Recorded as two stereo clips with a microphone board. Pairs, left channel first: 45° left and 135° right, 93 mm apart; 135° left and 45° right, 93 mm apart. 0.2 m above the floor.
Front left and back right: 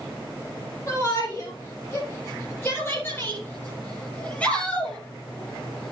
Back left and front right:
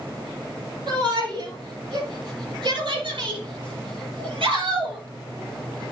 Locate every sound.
0.9 s a shout: 10° right, 6 m; by 5.9 s 40° right, 5 m